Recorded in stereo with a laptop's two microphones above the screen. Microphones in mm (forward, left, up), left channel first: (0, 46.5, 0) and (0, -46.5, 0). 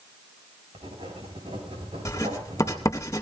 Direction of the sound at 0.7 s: 80° right.